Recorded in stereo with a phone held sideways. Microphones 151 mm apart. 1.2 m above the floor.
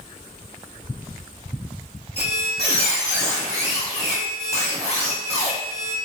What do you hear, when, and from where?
2.2 s a squeak: 40° left (ahead or behind), 1.0 m